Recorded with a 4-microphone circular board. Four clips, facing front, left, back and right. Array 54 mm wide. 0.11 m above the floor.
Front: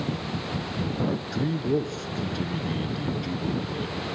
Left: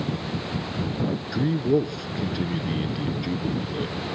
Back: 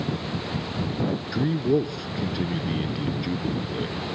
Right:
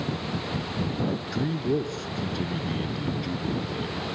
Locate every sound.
1.3 s a man speaking: 140° left, 1.1 m